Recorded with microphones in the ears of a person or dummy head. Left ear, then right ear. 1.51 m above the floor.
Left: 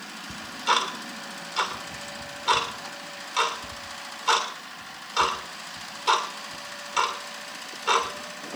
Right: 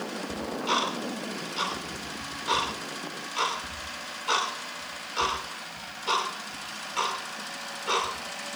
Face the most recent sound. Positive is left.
turn(degrees=45)  # may be behind; listen again after turning